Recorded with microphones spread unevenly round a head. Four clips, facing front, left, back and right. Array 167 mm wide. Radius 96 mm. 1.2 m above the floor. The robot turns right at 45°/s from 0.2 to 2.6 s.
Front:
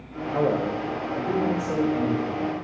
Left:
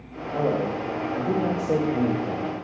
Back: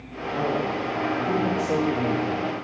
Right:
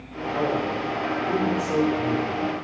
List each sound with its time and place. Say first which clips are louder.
0.3 s a man speaking: left 1 dB, front 2 dB; 30° left, 0.6 m; by 2.5 s 130° left, 0.6 m